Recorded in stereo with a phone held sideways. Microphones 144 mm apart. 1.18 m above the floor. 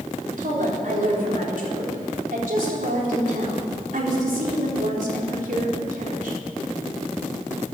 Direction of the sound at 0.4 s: 70° right (ahead or behind).